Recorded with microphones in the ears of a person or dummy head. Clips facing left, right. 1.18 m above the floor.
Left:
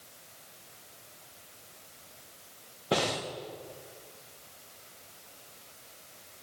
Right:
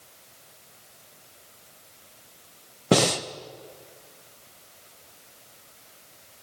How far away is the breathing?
About 0.7 m.